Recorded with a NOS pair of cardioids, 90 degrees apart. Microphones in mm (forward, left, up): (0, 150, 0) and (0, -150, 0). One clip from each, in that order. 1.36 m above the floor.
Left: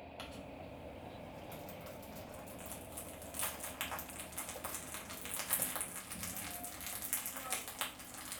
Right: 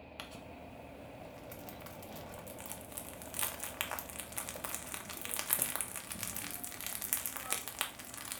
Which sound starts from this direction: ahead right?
Crumpling, at 0.2 s.